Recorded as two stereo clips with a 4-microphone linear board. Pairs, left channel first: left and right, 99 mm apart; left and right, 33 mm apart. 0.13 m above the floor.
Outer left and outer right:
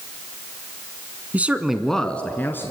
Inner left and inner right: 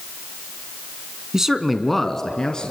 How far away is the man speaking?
About 1.1 m.